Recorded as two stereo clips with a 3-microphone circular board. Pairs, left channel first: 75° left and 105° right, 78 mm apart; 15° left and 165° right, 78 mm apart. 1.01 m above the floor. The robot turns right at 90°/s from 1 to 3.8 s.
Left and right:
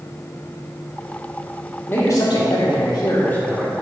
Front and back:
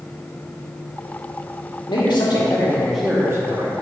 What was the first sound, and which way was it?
A man speaking, 10° left.